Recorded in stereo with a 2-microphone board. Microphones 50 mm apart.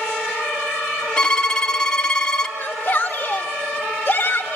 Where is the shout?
20° left (ahead or behind), 1.9 m.